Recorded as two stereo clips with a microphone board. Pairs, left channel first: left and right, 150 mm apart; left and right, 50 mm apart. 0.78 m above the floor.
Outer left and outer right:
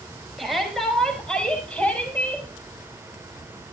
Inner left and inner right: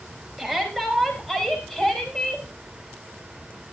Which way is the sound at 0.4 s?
Centre (ahead or behind).